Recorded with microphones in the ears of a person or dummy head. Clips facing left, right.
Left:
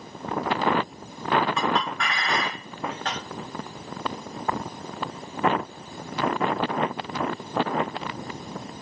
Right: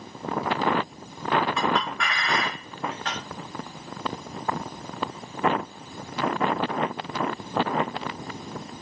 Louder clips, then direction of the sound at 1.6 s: Even; 35° left (ahead or behind).